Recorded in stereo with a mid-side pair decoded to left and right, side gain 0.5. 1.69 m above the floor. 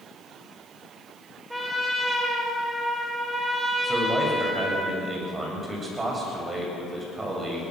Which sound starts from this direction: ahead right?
A man speaking, at 3.8 s.